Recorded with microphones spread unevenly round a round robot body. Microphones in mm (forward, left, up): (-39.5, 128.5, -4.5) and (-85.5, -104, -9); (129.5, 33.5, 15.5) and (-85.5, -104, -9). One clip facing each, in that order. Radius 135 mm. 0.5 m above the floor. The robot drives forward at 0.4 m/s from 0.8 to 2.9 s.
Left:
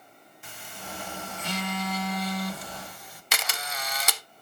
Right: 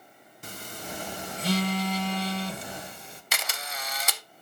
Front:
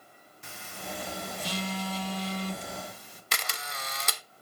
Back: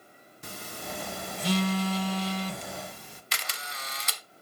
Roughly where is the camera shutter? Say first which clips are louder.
Left 2 dB, front 4 dB; left.